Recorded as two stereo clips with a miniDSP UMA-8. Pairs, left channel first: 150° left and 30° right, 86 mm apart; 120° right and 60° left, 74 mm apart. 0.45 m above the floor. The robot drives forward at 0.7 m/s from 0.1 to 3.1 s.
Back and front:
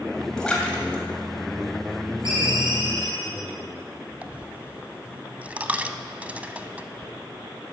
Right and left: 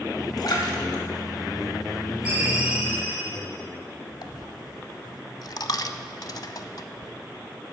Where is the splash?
125° right, 2.5 m; by 2.3 s 150° right, 3.5 m.